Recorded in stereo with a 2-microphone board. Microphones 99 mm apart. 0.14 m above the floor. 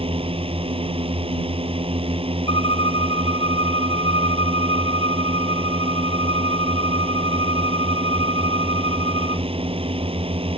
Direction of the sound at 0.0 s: 65° right (ahead or behind).